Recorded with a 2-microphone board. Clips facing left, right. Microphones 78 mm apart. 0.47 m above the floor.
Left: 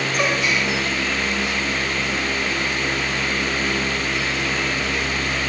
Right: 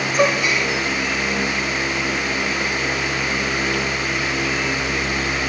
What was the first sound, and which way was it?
A gasp, 5° right (ahead or behind).